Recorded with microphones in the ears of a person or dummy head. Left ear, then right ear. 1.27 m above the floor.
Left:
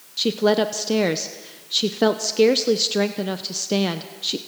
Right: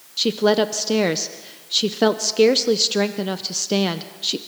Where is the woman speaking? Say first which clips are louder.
Right 1 dB; 5° right (ahead or behind), 0.6 m.